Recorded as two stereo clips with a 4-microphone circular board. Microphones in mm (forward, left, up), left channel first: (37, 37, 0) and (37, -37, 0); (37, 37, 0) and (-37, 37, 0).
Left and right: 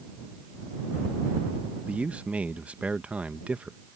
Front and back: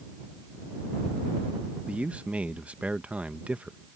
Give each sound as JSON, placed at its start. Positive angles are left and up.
{"t": 1.9, "sound": "a man speaking", "azimuth_deg": -135}